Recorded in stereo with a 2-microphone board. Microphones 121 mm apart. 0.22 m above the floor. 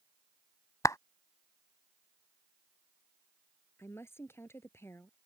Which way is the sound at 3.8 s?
20° left (ahead or behind).